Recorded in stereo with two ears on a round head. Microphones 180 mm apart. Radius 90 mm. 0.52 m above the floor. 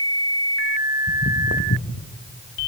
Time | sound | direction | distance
1.1 | footsteps | 40° left (ahead or behind) | 1.0 m